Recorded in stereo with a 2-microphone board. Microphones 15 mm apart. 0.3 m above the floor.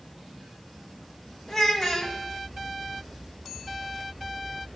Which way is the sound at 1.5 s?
25° left (ahead or behind).